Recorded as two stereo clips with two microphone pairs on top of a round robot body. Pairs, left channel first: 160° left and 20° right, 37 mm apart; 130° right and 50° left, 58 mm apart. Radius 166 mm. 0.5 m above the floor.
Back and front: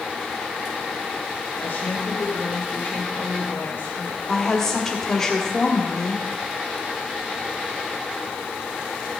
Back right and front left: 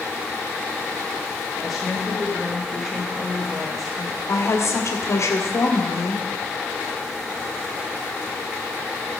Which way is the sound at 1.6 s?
140° left.